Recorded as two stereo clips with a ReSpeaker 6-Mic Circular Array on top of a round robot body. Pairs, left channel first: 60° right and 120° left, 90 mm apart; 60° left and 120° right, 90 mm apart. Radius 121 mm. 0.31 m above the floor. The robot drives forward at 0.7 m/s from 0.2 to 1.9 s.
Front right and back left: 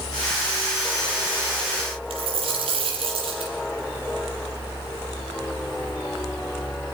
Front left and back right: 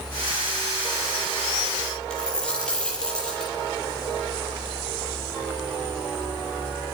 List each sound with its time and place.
2.1 s a dropped coin: 140° left, 6 m